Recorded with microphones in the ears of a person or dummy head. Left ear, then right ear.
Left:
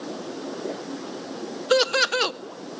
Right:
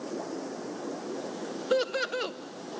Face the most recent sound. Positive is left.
turn(degrees=30)  # may be behind; listen again after turning